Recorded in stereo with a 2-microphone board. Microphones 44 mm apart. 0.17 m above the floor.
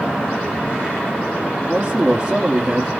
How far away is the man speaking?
About 2.5 m.